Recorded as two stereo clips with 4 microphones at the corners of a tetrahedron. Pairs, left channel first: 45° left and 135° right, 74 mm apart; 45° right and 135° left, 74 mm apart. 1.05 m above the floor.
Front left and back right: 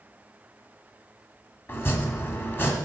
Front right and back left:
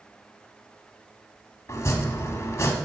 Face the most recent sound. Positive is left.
turn(degrees=-5)